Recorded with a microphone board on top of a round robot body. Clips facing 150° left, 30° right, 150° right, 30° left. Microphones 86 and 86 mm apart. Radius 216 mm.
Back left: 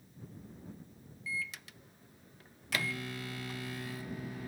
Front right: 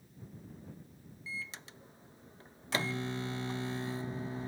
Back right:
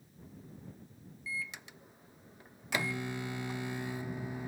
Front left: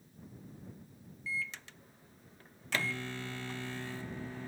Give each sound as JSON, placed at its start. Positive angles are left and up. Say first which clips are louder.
{"t": 1.3, "sound": "a microwave", "louder": "back left 4 dB, front left 2 dB", "azimuth_deg": -80}